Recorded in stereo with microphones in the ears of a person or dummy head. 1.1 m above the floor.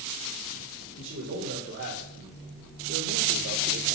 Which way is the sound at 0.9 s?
70° right (ahead or behind).